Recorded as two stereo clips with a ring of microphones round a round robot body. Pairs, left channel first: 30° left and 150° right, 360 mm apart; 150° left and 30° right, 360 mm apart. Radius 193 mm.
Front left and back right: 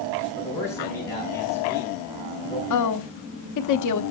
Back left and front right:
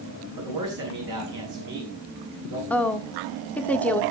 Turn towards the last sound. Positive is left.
turn(degrees=65)